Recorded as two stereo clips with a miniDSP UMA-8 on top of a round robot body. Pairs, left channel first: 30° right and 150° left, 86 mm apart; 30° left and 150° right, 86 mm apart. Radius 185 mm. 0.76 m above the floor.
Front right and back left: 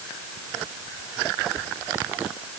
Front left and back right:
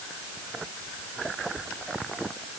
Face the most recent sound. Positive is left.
No sound to turn to.